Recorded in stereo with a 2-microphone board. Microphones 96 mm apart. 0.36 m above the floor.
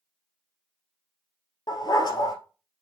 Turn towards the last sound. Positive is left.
turn(degrees=50)  # may be behind; listen again after turning